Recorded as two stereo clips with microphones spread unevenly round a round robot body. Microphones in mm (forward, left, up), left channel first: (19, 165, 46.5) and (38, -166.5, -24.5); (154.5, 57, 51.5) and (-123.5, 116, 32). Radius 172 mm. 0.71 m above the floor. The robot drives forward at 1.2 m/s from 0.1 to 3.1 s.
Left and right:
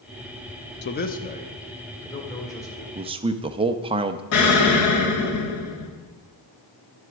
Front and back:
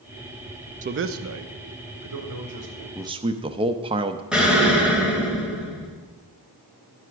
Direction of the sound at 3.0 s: 110° right.